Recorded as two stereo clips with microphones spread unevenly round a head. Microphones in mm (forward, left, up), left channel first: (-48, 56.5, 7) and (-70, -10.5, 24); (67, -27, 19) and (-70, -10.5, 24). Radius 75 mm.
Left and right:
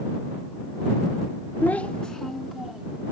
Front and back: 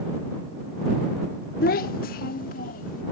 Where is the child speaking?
5° left; by 3.0 s 25° right.